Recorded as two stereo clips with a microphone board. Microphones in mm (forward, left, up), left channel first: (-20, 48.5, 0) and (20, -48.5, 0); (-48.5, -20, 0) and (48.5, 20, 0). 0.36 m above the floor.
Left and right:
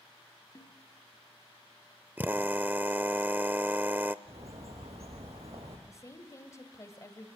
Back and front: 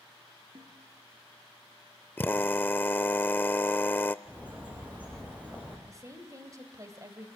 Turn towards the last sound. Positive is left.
turn(degrees=65)